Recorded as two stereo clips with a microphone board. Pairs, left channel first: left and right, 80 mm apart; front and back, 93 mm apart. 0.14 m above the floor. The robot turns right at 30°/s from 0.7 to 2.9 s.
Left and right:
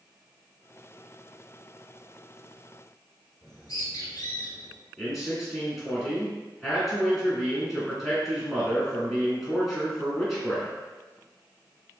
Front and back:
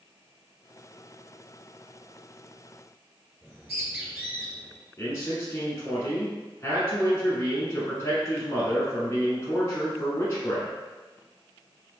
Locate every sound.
3.4 s a bird: 110° left, 1.8 m
5.0 s a man speaking: straight ahead, 1.2 m